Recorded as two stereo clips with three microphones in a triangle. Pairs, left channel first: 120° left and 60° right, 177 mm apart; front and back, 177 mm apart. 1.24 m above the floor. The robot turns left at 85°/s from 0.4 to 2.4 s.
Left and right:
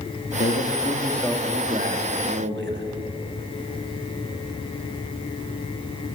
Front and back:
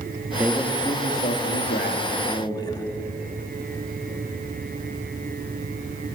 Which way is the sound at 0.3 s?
105° left.